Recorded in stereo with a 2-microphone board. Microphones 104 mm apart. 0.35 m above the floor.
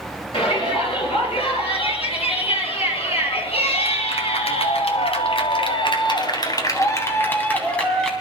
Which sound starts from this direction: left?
A shout, at 0.3 s.